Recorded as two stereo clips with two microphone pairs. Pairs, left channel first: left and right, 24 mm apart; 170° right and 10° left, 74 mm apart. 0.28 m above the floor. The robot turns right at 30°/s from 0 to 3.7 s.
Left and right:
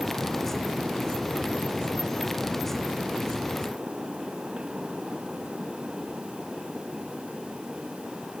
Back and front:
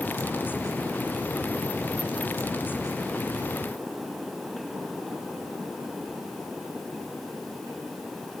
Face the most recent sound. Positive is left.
No sound to turn to.